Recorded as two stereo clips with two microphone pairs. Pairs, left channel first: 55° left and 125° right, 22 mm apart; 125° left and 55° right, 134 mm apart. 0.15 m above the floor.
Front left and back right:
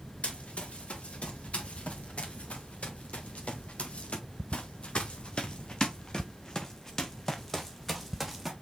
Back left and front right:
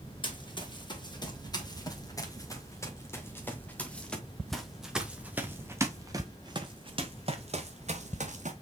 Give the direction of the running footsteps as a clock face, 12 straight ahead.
10 o'clock.